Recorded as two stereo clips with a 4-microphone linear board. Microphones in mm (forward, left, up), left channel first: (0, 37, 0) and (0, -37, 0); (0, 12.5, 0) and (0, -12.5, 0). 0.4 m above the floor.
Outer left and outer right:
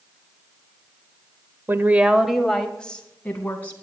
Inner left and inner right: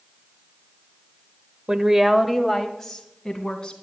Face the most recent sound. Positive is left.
turn(degrees=25)  # may be behind; listen again after turning